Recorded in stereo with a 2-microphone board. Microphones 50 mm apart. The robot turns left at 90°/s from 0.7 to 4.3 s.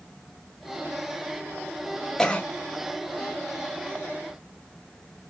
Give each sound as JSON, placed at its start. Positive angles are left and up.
{"t": 2.2, "sound": "a cough", "side_deg": 10, "distance_m": 1.4}